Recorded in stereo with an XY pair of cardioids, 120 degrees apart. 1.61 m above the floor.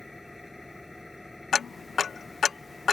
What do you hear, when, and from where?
0.0 s an engine running: 5° left
1.5 s ticking: 30° left